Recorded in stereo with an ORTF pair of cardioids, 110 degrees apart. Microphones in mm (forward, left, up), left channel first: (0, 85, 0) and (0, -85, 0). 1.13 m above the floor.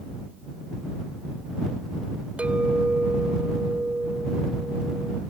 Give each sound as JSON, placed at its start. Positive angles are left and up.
{"t": 2.4, "sound": "a clink", "azimuth_deg": -5}